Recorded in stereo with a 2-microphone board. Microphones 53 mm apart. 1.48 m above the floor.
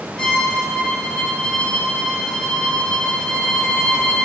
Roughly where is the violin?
Centre.